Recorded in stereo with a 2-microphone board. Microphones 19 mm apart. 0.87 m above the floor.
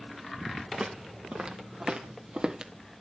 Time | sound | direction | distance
0.7 | footsteps | 70° right (ahead or behind) | 2.5 m